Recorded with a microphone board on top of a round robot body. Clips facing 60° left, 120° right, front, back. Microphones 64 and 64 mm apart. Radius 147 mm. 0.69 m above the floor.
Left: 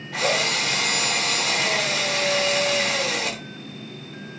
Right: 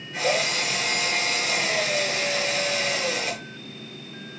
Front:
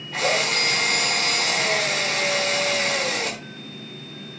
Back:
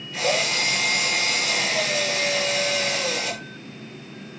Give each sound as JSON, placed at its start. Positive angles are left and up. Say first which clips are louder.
{"t": 0.1, "sound": "a drill", "louder": "left 1 dB, front 1 dB", "azimuth_deg": 35, "distance_m": 4.0}